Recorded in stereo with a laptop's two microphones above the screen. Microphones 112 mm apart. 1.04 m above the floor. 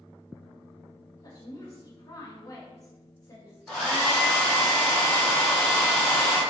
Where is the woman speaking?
35° left (ahead or behind), 0.7 m.